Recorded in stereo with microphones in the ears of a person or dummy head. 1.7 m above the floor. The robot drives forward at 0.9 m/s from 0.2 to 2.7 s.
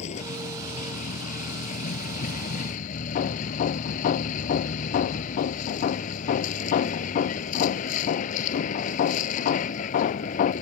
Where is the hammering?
45° left (ahead or behind).